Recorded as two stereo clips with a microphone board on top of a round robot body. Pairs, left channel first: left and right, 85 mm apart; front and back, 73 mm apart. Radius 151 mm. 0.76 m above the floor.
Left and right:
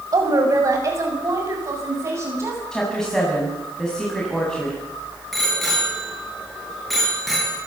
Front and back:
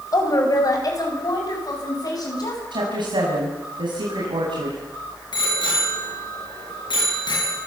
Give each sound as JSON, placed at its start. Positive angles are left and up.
{"t": 0.1, "sound": "a woman speaking", "azimuth_deg": -40, "distance_m": 6.0}
{"t": 2.7, "sound": "a woman speaking", "azimuth_deg": 175, "distance_m": 7.5}
{"t": 5.3, "sound": "a bicycle bell", "azimuth_deg": 0, "distance_m": 10.0}